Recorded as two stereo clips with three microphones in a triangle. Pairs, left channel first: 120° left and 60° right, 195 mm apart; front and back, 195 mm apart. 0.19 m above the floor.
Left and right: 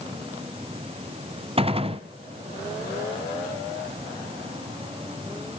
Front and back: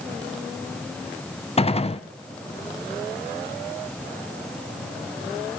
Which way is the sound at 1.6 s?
30° right.